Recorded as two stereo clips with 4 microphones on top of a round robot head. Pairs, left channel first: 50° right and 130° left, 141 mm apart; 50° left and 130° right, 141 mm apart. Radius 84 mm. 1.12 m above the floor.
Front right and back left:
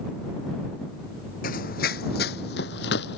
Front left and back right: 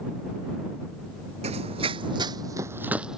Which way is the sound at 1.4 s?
80° right.